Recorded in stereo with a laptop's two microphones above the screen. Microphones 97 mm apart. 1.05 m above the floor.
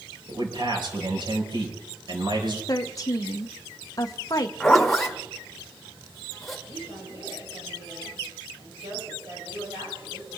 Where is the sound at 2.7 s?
40° left (ahead or behind), 0.7 m.